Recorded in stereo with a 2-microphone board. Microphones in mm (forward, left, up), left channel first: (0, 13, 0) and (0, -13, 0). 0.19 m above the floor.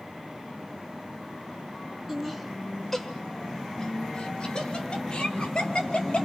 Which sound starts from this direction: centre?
Laughter, at 2.1 s.